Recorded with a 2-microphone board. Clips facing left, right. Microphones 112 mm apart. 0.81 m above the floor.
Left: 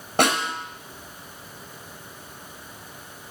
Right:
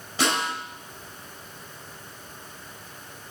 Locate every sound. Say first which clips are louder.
0.2 s a snare drum: left 4 dB; 55° left (ahead or behind), 4.5 m